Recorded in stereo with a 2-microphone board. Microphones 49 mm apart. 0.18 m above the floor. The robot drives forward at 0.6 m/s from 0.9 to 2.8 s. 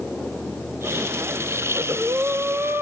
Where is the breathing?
75° right (ahead or behind), 0.7 m; by 2.8 s 45° right (ahead or behind), 1.0 m.